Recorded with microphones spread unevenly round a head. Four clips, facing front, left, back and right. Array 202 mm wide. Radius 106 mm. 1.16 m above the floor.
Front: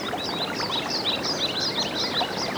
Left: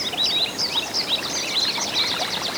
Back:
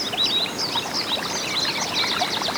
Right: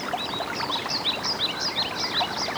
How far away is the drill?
I don't hear a drill.